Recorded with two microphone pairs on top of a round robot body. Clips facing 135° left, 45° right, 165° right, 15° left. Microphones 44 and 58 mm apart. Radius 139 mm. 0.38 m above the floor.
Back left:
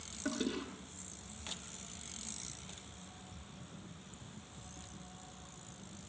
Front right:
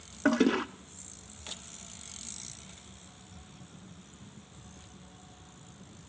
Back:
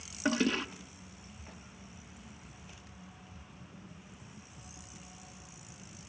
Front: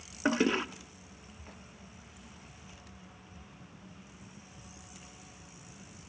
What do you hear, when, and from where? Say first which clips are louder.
0.2 s a toilet flushing: front right 12 dB, front 2 dB; 50° right, 0.7 m